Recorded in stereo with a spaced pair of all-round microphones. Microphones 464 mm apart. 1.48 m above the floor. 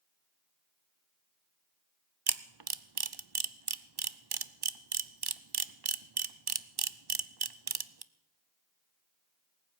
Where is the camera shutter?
55° right (ahead or behind), 0.6 m.